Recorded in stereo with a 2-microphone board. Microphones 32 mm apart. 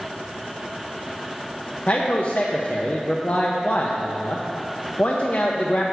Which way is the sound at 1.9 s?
60° left (ahead or behind).